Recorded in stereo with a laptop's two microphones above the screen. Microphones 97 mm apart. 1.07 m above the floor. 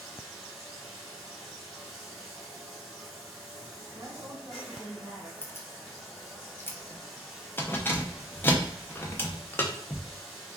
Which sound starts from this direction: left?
Keys jangling, at 5.4 s.